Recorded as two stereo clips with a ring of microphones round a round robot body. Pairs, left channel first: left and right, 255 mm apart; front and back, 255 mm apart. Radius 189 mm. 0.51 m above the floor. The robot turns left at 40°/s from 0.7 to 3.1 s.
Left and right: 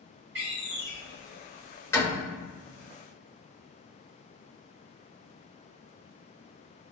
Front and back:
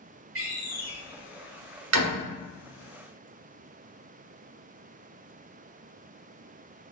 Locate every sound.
0.3 s a door slam: 140° right, 1.3 m; by 2.3 s 160° left, 1.3 m